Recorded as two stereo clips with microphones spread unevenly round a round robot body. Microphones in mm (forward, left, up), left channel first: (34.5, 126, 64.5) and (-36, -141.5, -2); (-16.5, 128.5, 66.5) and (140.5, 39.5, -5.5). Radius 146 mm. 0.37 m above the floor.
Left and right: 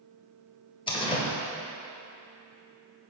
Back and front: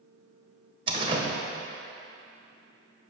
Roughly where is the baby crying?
No baby crying in this recording.